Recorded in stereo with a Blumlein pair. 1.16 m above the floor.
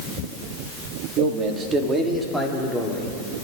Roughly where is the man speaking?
Ahead right.